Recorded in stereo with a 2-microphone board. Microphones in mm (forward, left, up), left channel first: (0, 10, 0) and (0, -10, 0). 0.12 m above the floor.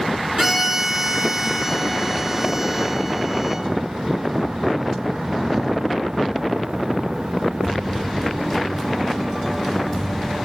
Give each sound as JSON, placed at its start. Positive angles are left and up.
{"t": 0.4, "sound": "a violin", "side_deg": -25, "distance_m": 1.8}